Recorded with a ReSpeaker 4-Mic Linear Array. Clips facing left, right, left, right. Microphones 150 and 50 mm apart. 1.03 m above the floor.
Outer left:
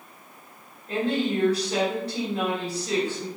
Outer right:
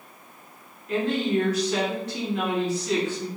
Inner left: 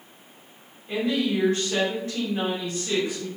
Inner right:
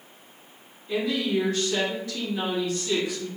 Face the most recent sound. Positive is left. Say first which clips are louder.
# outer right 1 dB, inner left 1 dB
turn(degrees=35)  # may be behind; listen again after turning